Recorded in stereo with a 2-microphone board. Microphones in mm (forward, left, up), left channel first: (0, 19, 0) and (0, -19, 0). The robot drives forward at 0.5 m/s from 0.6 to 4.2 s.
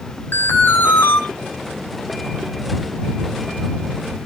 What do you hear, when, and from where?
0.3 s an alarm: 65° left (ahead or behind), 4 m